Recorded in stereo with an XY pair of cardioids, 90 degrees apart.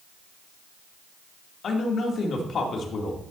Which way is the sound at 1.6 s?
65° left.